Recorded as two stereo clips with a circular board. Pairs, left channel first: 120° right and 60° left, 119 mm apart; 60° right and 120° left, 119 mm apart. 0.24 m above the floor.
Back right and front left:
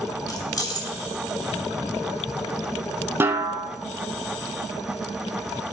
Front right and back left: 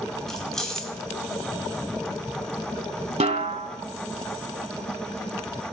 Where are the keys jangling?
145° right, 1.2 m.